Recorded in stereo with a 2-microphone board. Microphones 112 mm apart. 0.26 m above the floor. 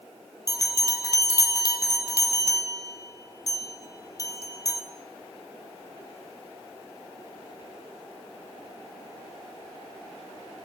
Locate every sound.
0.5 s a bell: 35° left (ahead or behind), 1.7 m